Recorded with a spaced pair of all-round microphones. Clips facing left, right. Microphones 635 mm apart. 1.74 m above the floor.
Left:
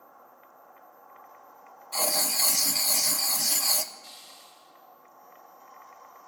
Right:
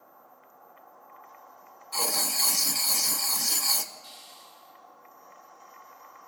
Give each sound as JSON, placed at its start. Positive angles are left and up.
{"t": 1.9, "sound": "writing", "side_deg": 10, "distance_m": 0.7}
{"t": 4.0, "sound": "a hiss", "side_deg": 70, "distance_m": 4.0}